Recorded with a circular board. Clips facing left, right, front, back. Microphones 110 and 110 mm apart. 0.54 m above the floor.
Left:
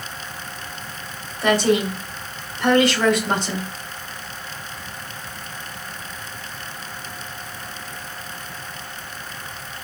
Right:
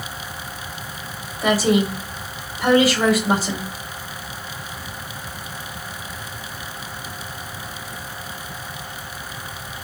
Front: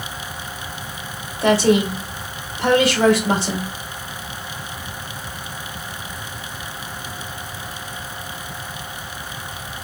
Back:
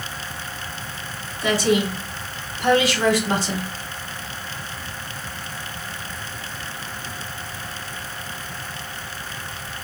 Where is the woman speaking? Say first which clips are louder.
Even, front 4 dB; 5° right, 1.9 m.